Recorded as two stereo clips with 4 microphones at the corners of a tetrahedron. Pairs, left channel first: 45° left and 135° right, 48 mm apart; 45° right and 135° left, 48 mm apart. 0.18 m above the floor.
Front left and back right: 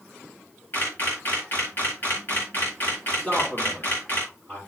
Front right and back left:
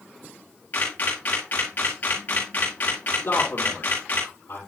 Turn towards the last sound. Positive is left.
turn(degrees=-10)